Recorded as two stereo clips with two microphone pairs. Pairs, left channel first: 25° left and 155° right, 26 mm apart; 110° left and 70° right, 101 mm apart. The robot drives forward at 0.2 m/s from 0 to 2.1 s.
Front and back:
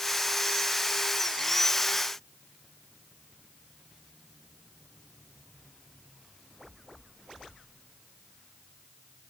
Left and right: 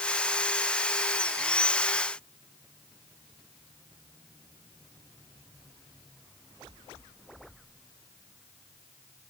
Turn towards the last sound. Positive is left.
No sound to turn to.